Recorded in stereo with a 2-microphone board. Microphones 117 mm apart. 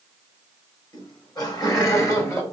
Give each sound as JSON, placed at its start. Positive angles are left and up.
{"t": 0.9, "sound": "laughter", "side_deg": 40, "distance_m": 3.0}